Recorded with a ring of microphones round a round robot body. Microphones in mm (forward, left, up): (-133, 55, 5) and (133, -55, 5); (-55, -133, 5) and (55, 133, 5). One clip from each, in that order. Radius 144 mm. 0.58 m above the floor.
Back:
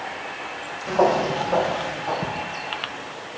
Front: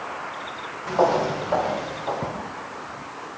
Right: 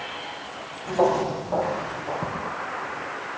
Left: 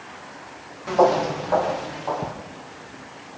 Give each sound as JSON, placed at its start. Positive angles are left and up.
{"t": 0.9, "sound": "footsteps", "azimuth_deg": 50, "distance_m": 7.0}